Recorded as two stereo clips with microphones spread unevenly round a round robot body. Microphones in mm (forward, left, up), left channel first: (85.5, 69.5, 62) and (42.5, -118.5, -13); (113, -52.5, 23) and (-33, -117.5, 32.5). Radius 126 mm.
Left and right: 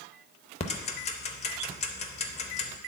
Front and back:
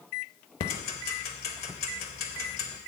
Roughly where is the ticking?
Left.